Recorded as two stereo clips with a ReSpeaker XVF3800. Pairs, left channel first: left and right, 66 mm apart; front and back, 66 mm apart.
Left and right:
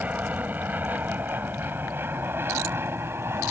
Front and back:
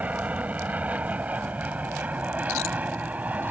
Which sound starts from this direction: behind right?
An aircraft, at 0.0 s.